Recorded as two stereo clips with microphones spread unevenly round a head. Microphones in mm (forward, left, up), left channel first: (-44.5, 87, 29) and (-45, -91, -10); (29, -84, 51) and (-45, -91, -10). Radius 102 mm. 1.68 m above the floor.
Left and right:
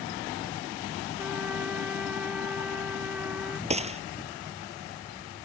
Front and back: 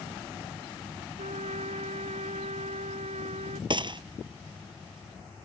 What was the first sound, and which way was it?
A trumpet, 175° left.